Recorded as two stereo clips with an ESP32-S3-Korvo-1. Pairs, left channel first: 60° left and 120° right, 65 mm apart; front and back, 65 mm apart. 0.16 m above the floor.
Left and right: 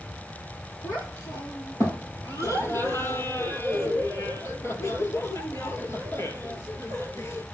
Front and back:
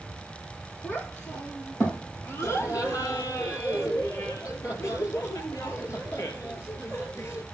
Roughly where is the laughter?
Ahead left.